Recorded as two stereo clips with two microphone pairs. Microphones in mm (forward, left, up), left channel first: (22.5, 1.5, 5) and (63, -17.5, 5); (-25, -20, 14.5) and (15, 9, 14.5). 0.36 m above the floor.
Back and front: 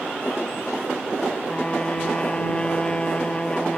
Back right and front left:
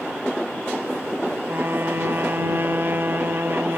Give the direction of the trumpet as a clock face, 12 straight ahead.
9 o'clock.